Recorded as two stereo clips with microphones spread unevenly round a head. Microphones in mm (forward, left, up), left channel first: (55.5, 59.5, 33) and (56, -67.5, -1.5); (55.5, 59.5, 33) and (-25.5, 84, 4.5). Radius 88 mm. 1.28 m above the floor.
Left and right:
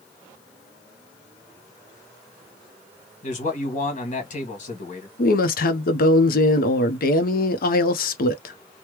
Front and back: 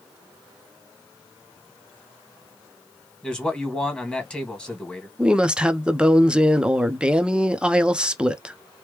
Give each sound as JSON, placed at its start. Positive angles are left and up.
{"t": 3.2, "sound": "a man speaking", "azimuth_deg": 65, "distance_m": 1.6}
{"t": 5.2, "sound": "a woman speaking", "azimuth_deg": 100, "distance_m": 0.7}